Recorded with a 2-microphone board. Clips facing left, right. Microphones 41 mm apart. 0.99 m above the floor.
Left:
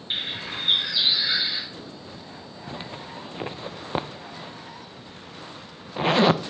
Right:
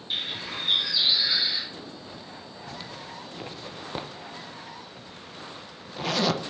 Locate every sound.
0.1 s a bird: 30° left (ahead or behind), 3.5 m
2.7 s a zipper: 30° left (ahead or behind), 0.6 m